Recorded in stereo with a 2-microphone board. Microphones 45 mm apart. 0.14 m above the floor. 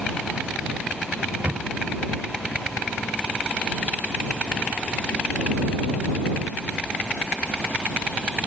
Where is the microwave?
35° right (ahead or behind).